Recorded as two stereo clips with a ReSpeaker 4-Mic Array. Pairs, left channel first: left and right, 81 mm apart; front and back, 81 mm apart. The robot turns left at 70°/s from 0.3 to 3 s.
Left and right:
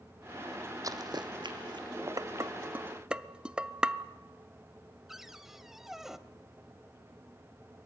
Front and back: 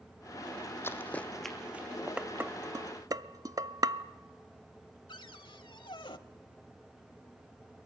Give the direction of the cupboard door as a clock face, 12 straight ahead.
12 o'clock.